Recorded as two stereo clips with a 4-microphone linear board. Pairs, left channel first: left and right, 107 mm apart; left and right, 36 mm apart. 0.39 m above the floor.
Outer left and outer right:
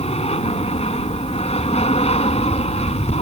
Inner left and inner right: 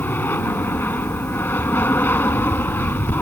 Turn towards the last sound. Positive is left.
turn(degrees=65)  # may be behind; listen again after turning